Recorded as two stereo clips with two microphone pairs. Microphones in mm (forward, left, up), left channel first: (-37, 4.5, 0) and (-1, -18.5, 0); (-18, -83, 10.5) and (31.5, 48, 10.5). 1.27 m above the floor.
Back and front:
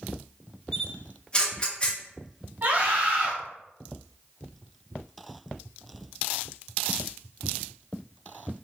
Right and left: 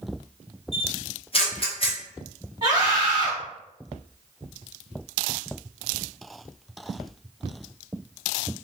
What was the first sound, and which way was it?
A camera shutter, 150° right.